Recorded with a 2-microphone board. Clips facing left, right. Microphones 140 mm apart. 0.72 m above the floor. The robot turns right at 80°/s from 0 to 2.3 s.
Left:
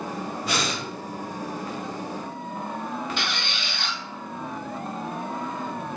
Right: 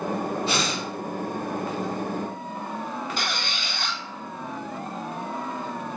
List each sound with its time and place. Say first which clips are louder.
0.4 s breathing: right 1 dB; 120° right, 1.1 m; by 0.8 s 90° right, 1.1 m
3.2 s a squeak: even; 45° right (ahead or behind), 0.9 m